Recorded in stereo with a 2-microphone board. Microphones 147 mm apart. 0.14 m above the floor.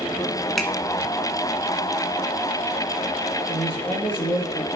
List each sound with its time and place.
0.6 s a finger snap: centre (ahead or behind), 1.4 m
3.5 s a man speaking: 40° left (ahead or behind), 2.5 m